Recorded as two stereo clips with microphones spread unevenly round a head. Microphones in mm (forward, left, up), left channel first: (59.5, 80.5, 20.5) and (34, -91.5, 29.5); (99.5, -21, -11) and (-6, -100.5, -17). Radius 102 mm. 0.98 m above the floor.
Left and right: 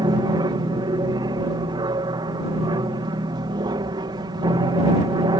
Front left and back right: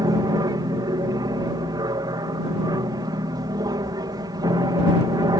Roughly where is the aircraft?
Behind right.